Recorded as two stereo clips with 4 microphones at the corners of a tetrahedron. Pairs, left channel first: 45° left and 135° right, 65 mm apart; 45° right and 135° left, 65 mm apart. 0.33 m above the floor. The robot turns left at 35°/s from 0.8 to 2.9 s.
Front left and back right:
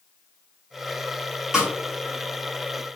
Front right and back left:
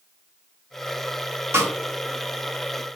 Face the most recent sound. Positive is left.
turn(degrees=95)